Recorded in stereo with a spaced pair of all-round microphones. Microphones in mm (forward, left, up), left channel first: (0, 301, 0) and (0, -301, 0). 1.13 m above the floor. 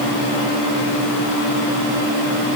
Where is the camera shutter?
No camera shutter in this recording.